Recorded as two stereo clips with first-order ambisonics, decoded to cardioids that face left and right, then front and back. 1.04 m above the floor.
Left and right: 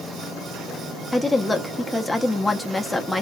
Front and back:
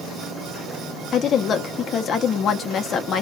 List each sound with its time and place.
1.1 s a woman speaking: 10° left, 0.6 m